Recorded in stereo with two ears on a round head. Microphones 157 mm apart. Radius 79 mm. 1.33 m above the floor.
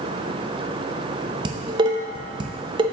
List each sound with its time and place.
1.4 s dishes clattering: 25° right (ahead or behind), 0.6 m